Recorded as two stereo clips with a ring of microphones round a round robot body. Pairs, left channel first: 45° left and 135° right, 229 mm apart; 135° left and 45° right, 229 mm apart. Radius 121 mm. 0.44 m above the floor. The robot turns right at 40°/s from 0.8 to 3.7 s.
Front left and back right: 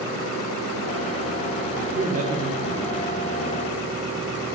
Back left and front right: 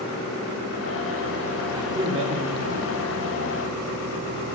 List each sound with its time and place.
1.7 s a man speaking: 115° right, 1.0 m; by 3.3 s 55° right, 1.0 m